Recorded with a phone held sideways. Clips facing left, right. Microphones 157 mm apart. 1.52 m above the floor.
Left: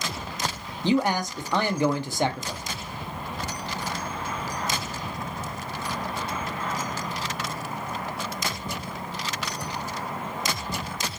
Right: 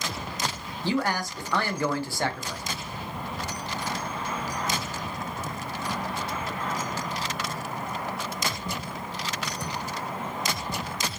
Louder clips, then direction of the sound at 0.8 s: Left 4 dB; 20° left (ahead or behind).